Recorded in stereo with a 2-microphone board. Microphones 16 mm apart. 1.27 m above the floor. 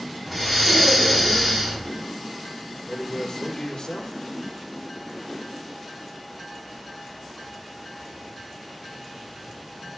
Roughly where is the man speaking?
Left.